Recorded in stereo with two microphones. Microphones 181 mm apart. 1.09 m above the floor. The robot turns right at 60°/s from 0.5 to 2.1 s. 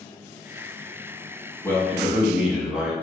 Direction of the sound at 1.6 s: 15° left (ahead or behind).